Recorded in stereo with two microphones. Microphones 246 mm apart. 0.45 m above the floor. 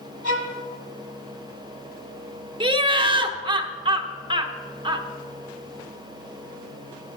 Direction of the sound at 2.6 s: 20° right (ahead or behind).